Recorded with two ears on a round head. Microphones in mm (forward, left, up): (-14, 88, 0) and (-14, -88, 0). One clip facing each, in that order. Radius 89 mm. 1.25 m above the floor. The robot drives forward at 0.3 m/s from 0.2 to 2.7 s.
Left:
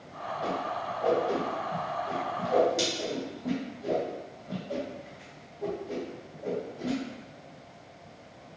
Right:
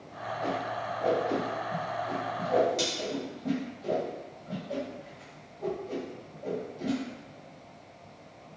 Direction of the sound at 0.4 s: 10° left (ahead or behind).